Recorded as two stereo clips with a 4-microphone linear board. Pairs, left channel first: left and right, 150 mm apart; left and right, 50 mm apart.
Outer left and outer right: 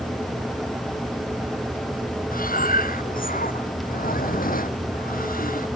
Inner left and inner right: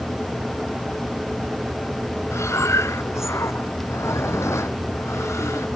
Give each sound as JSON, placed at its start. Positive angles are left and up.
{"t": 2.3, "sound": "breathing", "side_deg": 70}